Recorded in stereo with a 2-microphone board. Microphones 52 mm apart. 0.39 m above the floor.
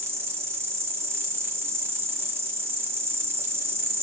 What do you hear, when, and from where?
0.0 s an insect: 60° right (ahead or behind), 2.0 m